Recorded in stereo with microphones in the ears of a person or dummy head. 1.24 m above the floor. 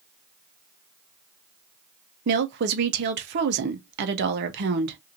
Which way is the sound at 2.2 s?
60° right (ahead or behind).